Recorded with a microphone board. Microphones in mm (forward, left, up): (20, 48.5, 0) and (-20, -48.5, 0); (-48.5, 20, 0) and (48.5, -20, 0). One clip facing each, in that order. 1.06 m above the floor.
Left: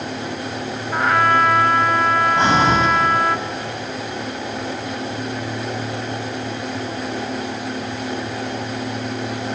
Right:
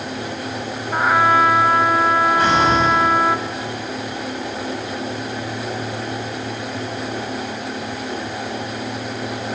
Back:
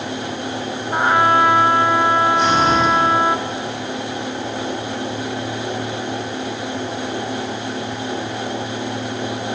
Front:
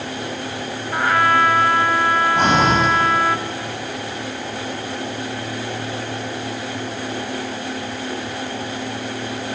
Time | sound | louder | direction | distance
0.9 | a trumpet | right 1 dB, back 2 dB | straight behind | 0.9 m
2.4 | breathing | even, even | 5° left | 5.5 m